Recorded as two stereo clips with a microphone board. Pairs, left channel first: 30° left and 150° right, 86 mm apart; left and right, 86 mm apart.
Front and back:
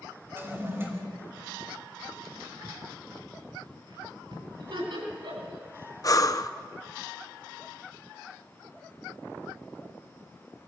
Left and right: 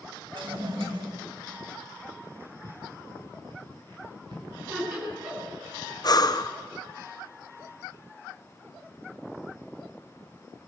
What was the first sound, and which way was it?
A toilet flushing, 85° right.